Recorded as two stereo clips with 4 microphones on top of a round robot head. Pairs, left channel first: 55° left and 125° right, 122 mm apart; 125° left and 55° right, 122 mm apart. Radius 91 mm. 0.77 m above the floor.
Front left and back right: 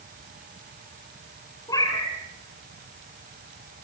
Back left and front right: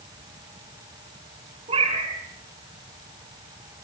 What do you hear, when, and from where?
1.7 s a cat meowing: 10° right, 3.5 m